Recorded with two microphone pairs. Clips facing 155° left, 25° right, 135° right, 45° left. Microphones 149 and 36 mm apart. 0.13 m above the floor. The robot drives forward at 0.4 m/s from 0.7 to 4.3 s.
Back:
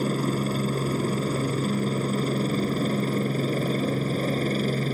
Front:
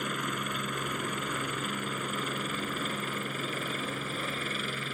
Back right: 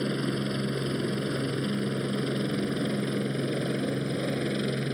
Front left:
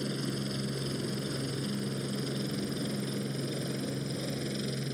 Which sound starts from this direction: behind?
A helicopter, at 0.0 s.